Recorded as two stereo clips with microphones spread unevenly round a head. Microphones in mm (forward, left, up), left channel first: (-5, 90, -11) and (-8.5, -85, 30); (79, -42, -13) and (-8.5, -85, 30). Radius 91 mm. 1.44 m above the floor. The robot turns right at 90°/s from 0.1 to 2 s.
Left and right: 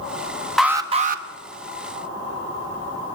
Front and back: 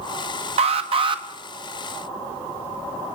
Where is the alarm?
Straight behind, 1.7 m; by 1.2 s 120° right, 1.7 m.